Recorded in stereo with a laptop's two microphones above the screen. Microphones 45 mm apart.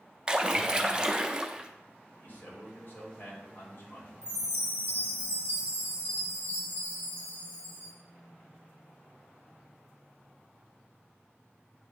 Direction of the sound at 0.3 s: 20° right (ahead or behind).